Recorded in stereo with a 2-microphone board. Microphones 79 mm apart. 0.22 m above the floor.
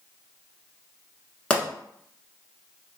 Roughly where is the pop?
Centre.